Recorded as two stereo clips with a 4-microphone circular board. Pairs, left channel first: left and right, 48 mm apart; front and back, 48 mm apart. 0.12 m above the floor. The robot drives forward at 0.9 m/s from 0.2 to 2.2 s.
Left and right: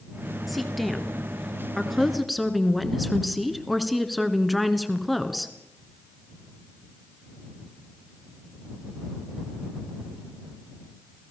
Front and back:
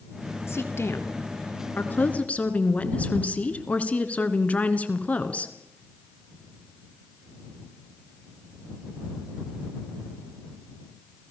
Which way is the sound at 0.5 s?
Straight ahead.